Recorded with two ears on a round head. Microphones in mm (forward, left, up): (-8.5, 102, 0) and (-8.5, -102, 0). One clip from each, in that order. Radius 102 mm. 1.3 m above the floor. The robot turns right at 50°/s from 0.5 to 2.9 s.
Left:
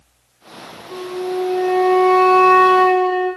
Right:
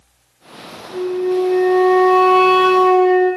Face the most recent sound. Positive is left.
turn(degrees=-160)